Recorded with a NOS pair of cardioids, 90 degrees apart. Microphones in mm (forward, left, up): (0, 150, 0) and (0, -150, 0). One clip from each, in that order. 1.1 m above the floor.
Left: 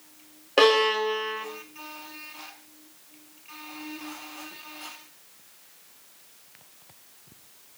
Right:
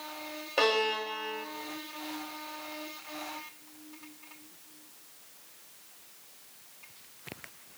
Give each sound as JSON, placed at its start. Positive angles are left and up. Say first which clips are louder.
{"t": 0.6, "sound": "a violin", "louder": "left 8 dB", "azimuth_deg": 50, "distance_m": 1.9}